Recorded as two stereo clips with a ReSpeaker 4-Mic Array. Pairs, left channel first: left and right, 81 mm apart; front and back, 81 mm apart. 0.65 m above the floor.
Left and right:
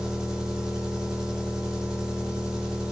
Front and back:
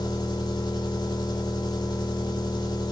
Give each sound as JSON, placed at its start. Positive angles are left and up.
{"t": 0.0, "sound": "an engine running", "azimuth_deg": -10, "distance_m": 1.3}